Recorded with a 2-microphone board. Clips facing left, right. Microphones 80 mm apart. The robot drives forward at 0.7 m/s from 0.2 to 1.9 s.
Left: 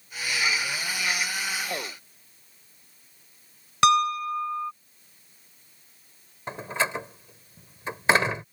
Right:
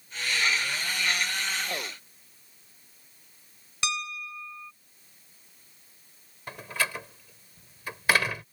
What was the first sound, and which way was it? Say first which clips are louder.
A piano: left 14 dB; 65° left (ahead or behind).